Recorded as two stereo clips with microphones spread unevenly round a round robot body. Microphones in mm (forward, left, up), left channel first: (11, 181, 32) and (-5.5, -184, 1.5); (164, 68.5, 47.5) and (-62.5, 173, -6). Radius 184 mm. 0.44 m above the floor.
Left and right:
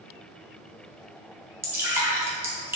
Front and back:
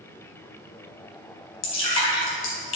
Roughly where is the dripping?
Ahead.